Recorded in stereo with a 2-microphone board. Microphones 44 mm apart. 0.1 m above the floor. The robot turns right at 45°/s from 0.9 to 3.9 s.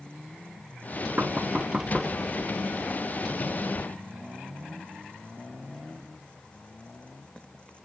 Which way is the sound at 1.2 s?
40° right (ahead or behind).